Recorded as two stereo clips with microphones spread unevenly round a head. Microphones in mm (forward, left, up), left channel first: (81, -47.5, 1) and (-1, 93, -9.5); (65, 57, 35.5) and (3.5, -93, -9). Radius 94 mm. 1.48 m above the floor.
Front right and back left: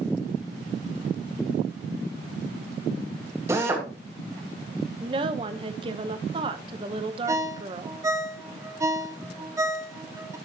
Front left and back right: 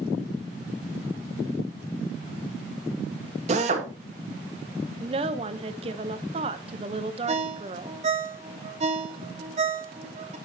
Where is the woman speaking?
Straight behind, 0.7 m.